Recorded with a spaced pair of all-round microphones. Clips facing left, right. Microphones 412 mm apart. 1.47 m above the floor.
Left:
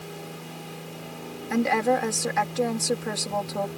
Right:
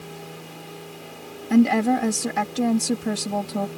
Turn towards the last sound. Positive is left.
turn(degrees=-50)  # may be behind; listen again after turning